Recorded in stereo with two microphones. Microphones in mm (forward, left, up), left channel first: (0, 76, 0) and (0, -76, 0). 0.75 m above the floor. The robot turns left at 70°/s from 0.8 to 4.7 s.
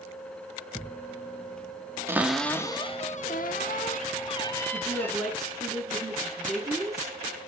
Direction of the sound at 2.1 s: 165° right.